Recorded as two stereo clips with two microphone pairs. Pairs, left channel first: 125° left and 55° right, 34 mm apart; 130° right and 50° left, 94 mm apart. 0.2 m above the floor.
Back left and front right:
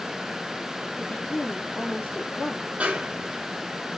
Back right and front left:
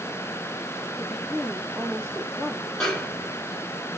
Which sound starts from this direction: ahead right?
A snare drum, at 2.8 s.